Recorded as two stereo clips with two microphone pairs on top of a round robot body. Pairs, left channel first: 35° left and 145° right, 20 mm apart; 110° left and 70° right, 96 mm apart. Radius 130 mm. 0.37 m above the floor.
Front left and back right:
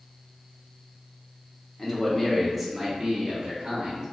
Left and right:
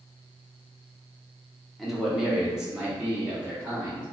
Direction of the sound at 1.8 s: Straight ahead.